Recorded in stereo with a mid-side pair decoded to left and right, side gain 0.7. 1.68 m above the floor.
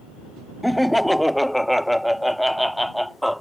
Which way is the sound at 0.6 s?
5° left.